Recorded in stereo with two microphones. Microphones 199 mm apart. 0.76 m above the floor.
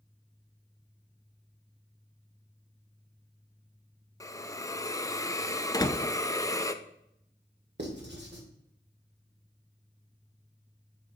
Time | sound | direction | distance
4.2 | a hiss | 15° left (ahead or behind) | 0.5 m
5.7 | a door slam | 20° left (ahead or behind) | 0.5 m
7.8 | writing | 60° right (ahead or behind) | 1.9 m